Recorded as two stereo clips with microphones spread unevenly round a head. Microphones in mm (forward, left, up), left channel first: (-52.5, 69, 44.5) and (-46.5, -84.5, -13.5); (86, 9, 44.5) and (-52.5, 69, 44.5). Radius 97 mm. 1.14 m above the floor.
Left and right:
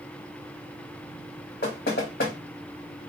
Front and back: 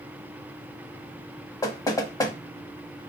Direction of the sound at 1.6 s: 45° left.